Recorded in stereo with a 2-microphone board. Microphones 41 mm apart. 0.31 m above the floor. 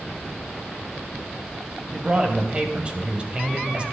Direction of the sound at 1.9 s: 30° right (ahead or behind).